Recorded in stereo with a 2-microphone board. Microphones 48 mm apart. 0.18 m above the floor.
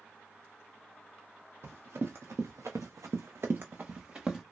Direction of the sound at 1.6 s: 55° right (ahead or behind).